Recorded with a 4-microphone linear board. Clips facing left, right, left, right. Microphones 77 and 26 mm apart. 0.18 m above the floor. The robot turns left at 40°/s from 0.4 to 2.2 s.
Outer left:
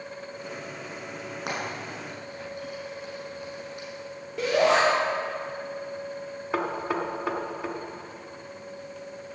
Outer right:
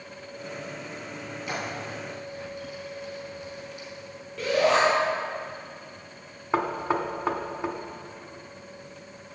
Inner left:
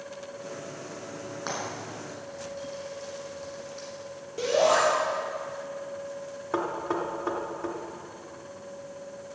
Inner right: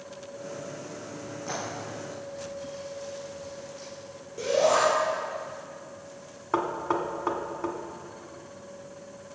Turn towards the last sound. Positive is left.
turn(degrees=-25)  # may be behind; listen again after turning